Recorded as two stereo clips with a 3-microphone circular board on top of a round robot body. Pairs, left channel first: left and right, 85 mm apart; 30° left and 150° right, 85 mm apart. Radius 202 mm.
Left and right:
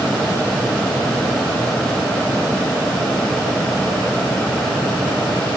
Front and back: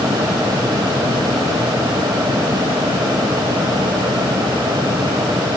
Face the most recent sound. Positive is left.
No sound to turn to.